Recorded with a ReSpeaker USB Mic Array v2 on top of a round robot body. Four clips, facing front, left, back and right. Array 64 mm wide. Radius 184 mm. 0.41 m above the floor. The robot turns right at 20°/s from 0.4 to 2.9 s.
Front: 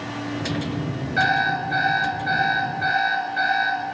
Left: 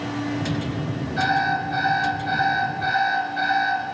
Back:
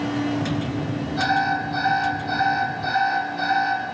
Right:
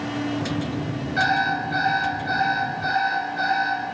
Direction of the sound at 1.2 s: 25° right.